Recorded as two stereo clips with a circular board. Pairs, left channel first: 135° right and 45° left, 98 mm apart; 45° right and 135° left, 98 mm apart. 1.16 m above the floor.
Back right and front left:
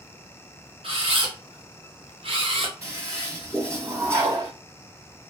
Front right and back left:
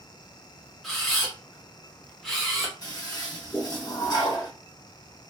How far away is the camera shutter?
About 0.9 m.